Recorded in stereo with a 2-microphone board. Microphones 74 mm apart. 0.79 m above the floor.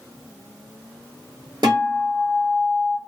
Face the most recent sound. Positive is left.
turn(degrees=-70)  # may be behind; listen again after turning